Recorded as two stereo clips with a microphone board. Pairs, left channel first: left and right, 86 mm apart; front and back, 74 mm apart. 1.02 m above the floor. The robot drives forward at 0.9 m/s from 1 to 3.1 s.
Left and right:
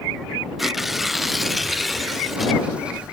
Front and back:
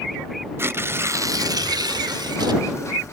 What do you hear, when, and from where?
0.6 s tearing paper: straight behind, 0.5 m